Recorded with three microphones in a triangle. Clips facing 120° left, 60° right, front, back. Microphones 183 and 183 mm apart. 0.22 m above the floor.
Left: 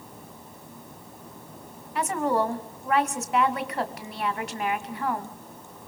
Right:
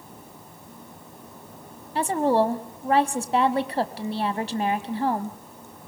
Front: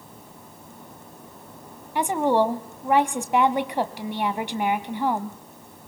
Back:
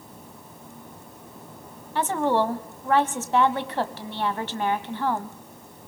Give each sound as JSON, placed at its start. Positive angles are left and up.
{"t": 1.9, "sound": "a woman speaking", "azimuth_deg": -65, "distance_m": 1.3}